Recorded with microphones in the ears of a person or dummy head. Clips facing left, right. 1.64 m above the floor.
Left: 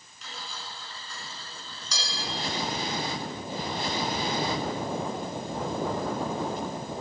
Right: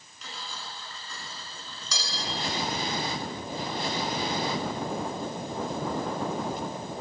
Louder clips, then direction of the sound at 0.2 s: Even; 60° right (ahead or behind).